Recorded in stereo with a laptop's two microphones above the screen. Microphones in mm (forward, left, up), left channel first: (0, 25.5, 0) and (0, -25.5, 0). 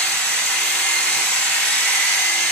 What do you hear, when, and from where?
0.0 s a machine running: 10° left (ahead or behind), 1.4 m